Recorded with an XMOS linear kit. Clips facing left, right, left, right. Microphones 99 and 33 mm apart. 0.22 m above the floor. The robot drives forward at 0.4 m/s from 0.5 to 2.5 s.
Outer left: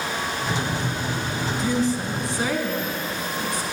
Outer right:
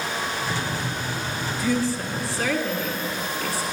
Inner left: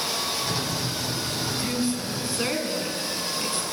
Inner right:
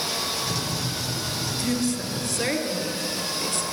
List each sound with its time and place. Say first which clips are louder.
1.6 s a woman speaking: outer left 1 dB, inner right 3 dB; 25° left (ahead or behind), 1.5 m; by 3.6 s 20° left (ahead or behind), 1.8 m